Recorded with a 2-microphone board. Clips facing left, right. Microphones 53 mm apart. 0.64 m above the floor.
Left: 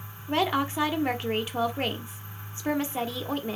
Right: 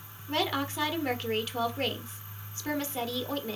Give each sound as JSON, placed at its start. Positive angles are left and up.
{"t": 0.3, "sound": "a woman speaking", "side_deg": 20, "distance_m": 1.0}